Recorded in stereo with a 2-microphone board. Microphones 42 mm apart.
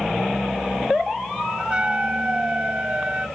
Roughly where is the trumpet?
Right.